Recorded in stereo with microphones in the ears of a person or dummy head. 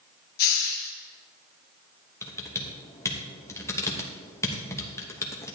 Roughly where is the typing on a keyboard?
Centre.